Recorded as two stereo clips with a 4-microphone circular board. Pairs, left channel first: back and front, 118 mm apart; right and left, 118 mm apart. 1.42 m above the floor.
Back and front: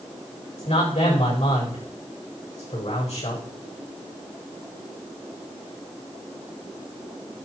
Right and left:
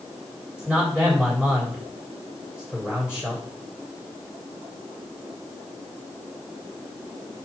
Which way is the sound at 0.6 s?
170° left.